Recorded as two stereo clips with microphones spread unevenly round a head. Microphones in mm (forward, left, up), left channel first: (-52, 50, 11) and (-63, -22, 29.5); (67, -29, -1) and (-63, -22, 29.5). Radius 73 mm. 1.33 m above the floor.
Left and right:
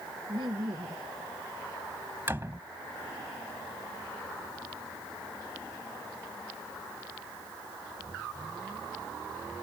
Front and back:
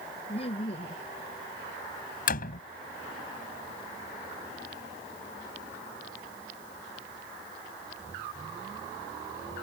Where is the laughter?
50° right.